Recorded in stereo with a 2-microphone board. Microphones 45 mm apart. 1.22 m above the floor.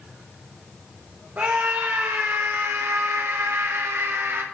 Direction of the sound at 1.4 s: 45° right (ahead or behind).